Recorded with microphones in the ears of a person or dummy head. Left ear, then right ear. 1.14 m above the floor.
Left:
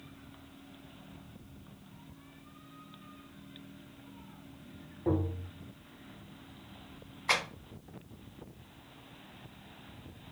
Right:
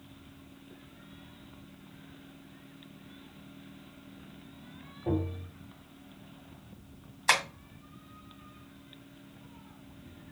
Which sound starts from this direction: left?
Tapping, at 5.1 s.